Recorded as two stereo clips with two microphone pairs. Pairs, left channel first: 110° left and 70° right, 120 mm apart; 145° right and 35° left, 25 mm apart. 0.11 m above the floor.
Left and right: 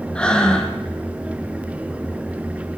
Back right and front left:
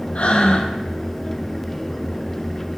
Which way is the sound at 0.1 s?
170° right.